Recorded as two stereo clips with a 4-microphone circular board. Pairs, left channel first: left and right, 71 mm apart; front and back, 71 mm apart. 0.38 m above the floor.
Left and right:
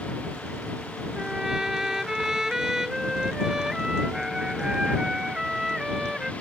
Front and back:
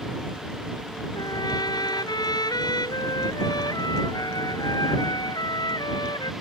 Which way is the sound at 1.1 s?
10° right.